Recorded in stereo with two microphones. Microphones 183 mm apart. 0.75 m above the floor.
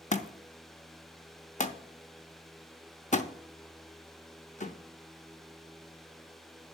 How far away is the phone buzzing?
I don't hear a phone buzzing.